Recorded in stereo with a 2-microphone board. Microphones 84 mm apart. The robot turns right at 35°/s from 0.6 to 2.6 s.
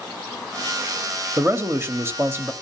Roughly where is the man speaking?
Right.